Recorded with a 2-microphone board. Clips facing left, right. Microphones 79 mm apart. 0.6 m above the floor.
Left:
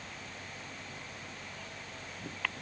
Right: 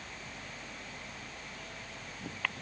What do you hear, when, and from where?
Only background noise.